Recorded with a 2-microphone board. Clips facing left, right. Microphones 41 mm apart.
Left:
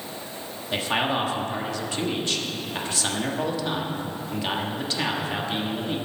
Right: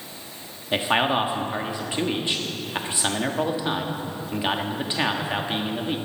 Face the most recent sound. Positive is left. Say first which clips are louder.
# right 3 dB
turn(degrees=-20)  # may be behind; listen again after turning